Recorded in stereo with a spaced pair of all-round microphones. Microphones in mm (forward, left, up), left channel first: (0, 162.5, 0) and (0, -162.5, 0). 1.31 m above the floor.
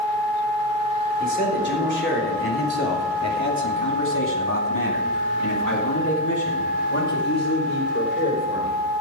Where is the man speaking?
30° left (ahead or behind), 4 m; by 8.8 s 40° left (ahead or behind), 4.5 m.